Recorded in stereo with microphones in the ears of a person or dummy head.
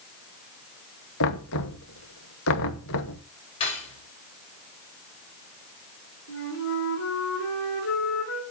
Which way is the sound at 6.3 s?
75° left (ahead or behind).